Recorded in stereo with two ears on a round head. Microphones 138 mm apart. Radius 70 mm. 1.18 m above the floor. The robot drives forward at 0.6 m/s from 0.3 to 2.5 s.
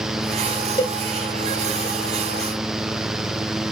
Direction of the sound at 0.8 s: 25° left (ahead or behind).